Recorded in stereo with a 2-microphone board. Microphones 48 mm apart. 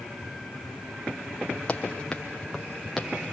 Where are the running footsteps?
20° left (ahead or behind), 3.5 m; by 3.3 s 10° right (ahead or behind), 2.5 m.